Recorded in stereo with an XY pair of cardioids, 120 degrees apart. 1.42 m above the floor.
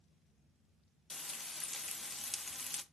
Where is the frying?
20° left, 0.7 m.